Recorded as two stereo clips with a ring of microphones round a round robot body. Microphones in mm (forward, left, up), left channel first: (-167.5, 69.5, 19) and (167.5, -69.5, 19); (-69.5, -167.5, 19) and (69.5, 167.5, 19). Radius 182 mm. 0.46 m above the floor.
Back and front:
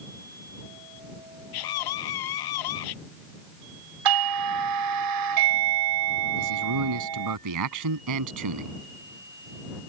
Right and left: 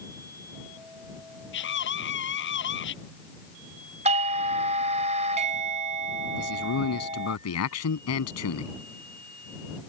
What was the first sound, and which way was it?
A scream, 175° right.